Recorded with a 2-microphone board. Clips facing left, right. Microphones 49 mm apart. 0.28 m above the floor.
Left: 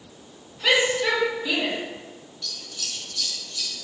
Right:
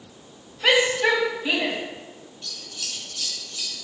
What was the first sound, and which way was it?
A shout, 35° right (ahead or behind).